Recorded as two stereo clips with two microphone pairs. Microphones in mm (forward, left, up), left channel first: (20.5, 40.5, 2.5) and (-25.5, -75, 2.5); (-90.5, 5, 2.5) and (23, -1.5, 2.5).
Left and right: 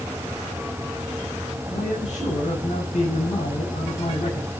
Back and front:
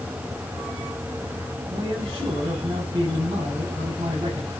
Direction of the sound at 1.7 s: 45° left.